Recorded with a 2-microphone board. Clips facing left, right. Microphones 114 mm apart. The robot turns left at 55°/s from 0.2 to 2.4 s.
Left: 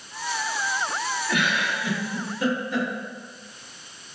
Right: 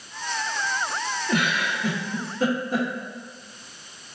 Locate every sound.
1.3 s a giggle: 35° right (ahead or behind), 0.8 m; by 2.9 s 40° right (ahead or behind), 0.8 m